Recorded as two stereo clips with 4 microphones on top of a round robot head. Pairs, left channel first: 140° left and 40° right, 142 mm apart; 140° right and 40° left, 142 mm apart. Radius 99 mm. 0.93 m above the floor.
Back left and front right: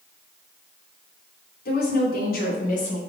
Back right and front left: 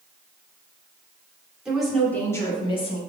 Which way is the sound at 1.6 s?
125° left.